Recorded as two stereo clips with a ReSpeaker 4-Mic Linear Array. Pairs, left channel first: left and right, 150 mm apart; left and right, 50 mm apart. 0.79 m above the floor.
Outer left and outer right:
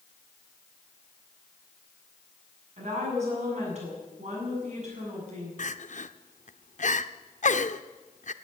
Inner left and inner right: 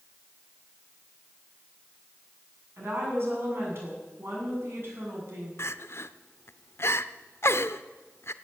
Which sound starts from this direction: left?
Crying, at 5.6 s.